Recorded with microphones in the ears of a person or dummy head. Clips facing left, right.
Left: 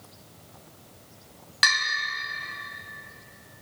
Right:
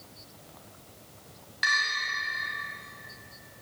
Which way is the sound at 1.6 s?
60° left (ahead or behind).